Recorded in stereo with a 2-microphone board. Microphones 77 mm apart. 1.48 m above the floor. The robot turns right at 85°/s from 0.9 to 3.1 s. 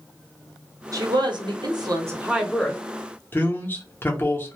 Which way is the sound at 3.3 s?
30° left (ahead or behind).